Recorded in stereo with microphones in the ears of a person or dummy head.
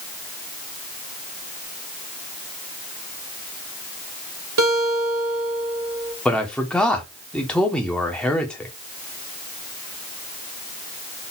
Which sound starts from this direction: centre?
A man speaking, at 6.2 s.